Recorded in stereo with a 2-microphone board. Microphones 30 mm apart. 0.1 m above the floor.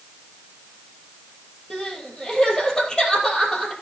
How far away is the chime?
No chime in this recording.